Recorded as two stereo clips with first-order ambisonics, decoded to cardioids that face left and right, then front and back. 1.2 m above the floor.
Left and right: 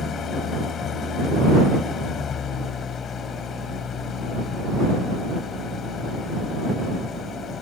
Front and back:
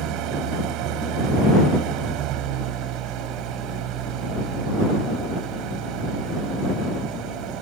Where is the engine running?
150° left.